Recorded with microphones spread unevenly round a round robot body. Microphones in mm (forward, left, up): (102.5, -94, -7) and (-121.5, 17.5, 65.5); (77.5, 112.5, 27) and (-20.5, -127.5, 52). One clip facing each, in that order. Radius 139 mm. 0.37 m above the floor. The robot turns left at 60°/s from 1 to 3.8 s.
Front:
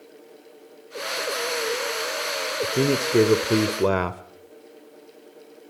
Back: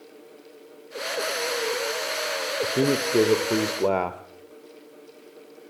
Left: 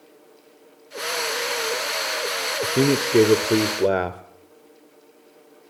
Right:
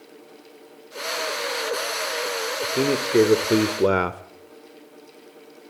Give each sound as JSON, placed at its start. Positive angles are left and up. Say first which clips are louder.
{"t": 2.6, "sound": "a man speaking", "louder": "front 1 dB, left 4 dB", "azimuth_deg": 40, "distance_m": 1.1}